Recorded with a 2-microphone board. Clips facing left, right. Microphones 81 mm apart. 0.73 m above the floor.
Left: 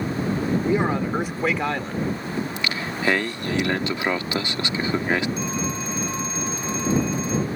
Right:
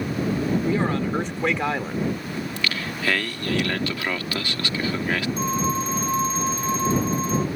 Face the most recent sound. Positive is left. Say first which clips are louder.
# right 3 dB
turn(degrees=-40)  # may be behind; listen again after turning